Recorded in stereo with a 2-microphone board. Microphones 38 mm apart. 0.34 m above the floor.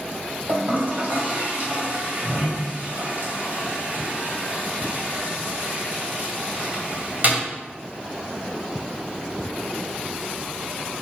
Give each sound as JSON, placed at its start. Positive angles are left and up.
{"t": 0.5, "sound": "a toilet flushing", "side_deg": -50, "distance_m": 2.0}